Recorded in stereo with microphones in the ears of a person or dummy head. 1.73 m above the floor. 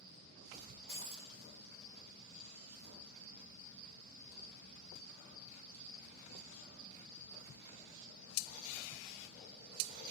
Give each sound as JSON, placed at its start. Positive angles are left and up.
{"t": 0.9, "sound": "breaking glass", "side_deg": -30, "distance_m": 4.5}